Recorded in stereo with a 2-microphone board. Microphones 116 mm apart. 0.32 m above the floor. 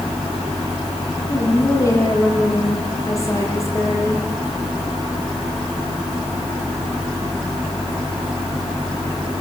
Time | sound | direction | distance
1.3 | a woman speaking | 25° left (ahead or behind) | 9 m